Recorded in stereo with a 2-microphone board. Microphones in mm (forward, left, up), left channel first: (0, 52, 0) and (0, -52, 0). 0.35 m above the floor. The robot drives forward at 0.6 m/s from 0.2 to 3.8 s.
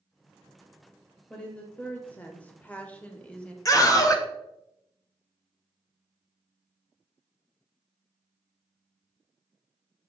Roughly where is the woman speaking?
Centre.